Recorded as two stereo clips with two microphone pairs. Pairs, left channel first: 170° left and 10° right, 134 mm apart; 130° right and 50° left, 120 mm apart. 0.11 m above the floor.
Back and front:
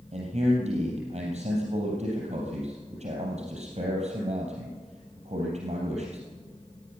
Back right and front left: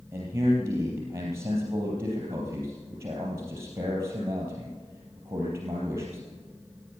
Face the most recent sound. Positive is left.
turn(degrees=-10)